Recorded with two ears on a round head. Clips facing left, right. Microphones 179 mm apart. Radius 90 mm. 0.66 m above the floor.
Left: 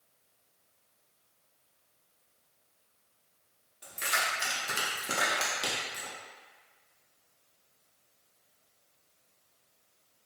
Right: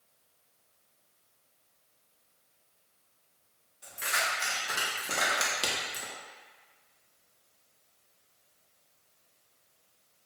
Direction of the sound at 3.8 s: 60° left (ahead or behind).